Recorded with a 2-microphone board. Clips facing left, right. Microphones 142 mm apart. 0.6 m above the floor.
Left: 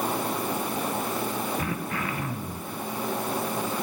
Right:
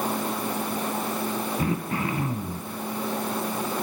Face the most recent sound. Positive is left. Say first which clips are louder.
# right 4 dB
turn(degrees=-30)  # may be behind; listen again after turning